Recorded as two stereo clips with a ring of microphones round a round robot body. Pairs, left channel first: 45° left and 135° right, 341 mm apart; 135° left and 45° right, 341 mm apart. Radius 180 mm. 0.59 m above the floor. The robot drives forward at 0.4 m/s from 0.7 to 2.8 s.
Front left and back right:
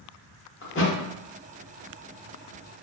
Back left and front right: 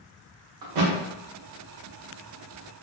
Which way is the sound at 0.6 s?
15° right.